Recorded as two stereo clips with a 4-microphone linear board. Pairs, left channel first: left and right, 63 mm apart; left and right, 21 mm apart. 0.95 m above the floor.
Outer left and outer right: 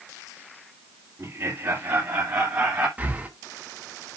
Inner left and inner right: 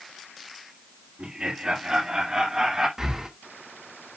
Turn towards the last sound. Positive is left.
turn(degrees=-25)  # may be behind; listen again after turning